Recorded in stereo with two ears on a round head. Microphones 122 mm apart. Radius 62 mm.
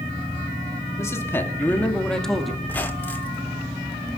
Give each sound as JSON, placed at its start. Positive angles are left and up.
{"t": 1.0, "sound": "a man speaking", "side_deg": 25, "distance_m": 2.5}
{"t": 2.6, "sound": "a squeak", "side_deg": 15, "distance_m": 1.3}